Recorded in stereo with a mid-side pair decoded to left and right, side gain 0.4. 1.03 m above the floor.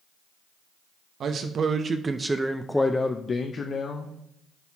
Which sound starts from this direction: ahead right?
A man speaking, at 1.2 s.